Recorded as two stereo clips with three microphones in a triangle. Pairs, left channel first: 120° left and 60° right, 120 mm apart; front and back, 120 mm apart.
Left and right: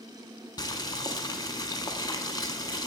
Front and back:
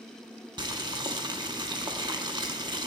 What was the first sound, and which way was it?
Boiling, 155° left.